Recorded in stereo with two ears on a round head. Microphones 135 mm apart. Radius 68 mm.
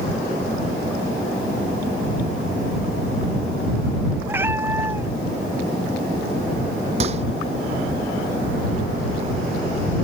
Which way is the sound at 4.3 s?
15° right (ahead or behind).